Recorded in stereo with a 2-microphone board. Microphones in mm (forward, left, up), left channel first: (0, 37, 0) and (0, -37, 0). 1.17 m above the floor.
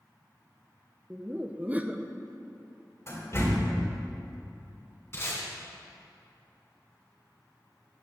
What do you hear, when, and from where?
1.1 s laughter: 20° right (ahead or behind), 0.6 m
3.1 s a door slam: 40° left (ahead or behind), 3 m
5.1 s tape being pulled: 35° left (ahead or behind), 3 m